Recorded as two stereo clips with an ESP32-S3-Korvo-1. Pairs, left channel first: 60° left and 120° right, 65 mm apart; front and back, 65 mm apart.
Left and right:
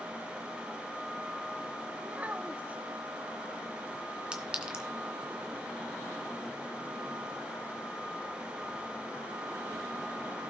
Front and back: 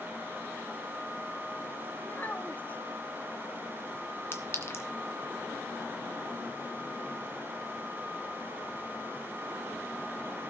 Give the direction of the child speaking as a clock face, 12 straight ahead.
2 o'clock.